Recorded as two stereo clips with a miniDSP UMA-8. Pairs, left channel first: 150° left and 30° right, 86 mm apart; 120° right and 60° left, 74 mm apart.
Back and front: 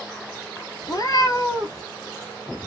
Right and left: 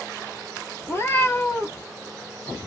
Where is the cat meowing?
175° right, 1.0 m.